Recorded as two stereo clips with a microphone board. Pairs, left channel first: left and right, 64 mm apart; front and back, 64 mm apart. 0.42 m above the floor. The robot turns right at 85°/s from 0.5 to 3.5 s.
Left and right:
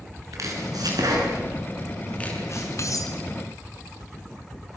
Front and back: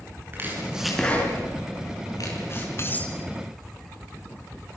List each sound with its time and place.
0.3 s chopping: 125° right, 5.5 m; by 2.7 s 65° left, 5.5 m
2.8 s cutlery clinking: 50° left, 2.5 m; by 3.2 s 80° left, 2.5 m